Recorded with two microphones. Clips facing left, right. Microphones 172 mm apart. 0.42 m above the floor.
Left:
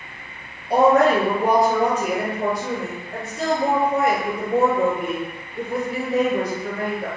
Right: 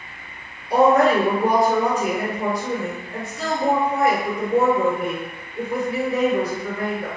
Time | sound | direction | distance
0.7 | a woman speaking | 65° left (ahead or behind) | 1.8 m